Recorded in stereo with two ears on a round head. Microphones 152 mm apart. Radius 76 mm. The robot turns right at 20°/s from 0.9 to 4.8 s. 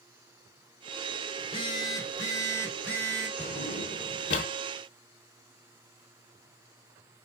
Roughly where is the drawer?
Left.